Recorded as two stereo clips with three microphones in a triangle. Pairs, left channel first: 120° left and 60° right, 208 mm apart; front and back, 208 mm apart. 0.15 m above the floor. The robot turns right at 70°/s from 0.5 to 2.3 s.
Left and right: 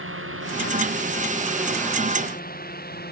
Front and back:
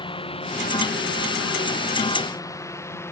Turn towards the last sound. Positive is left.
turn(degrees=80)